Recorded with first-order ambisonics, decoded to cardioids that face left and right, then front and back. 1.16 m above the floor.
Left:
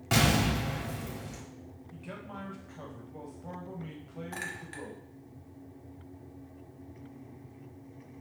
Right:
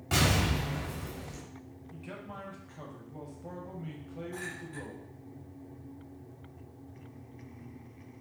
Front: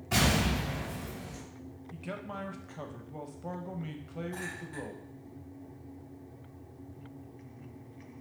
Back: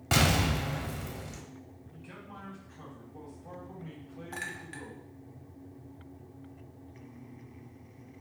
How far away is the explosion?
About 1.1 m.